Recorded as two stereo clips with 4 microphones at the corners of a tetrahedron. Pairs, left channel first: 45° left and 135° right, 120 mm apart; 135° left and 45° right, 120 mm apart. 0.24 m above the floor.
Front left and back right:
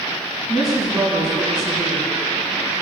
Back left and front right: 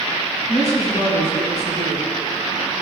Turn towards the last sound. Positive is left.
turn(degrees=135)